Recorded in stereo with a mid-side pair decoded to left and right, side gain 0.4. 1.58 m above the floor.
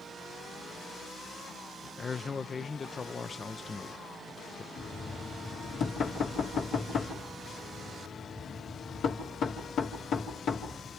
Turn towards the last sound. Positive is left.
turn(degrees=70)